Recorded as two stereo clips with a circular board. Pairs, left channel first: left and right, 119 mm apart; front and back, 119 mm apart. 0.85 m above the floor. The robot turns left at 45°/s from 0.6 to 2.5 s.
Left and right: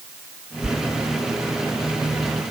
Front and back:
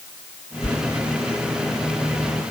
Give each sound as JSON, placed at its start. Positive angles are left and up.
{"t": 0.6, "sound": "a sliding door", "azimuth_deg": -5}